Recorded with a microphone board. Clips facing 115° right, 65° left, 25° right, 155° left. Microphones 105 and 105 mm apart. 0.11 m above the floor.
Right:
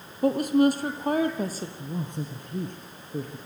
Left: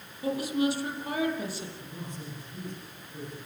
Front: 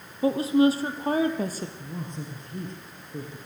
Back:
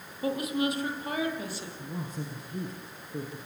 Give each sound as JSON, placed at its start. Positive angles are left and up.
{"t": 0.2, "sound": "a woman speaking", "azimuth_deg": -85, "distance_m": 3.0}
{"t": 1.8, "sound": "a man speaking", "azimuth_deg": -120, "distance_m": 2.5}